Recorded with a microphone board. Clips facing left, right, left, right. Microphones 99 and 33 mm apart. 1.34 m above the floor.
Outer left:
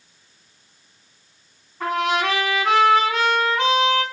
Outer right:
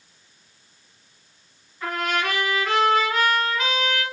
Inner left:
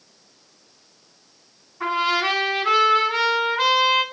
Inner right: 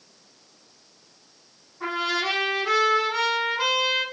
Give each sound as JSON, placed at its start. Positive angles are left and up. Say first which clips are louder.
{"t": 1.8, "sound": "a trumpet", "louder": "outer left 4 dB, inner left 5 dB", "side_deg": 80, "distance_m": 5.5}